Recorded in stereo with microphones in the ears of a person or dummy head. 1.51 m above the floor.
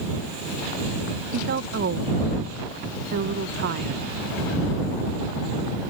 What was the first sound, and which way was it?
A woman speaking, 60° right (ahead or behind).